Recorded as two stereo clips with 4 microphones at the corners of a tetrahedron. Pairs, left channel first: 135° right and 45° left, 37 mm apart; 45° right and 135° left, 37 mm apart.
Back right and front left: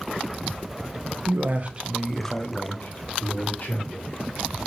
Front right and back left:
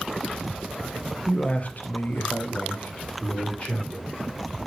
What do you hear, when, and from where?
1.3 s a man speaking: 25° left, 0.8 m; by 4.2 s 100° right, 2.5 m